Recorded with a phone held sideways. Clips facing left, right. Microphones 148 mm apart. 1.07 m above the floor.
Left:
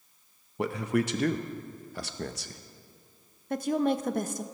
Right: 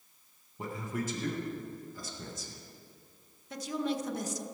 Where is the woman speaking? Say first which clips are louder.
Left 7 dB; 55° left (ahead or behind), 0.6 m.